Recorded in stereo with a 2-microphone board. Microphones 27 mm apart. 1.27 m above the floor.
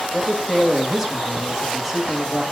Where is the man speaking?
10° right (ahead or behind), 1.4 m.